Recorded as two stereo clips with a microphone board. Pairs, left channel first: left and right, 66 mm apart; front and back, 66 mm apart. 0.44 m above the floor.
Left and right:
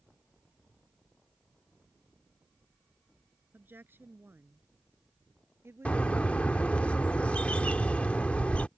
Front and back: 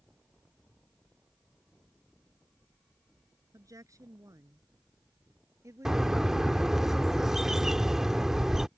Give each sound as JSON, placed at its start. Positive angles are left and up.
{"t": 3.5, "sound": "a woman speaking", "azimuth_deg": -150}
{"t": 5.8, "sound": "a bird", "azimuth_deg": 110}